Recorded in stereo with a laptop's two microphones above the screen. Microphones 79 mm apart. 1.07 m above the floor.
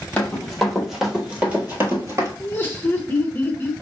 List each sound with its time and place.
0.2 s running footsteps: 15° left (ahead or behind), 1.6 m; by 2.3 s 40° right (ahead or behind), 1.4 m
2.4 s laughter: 25° left (ahead or behind), 0.7 m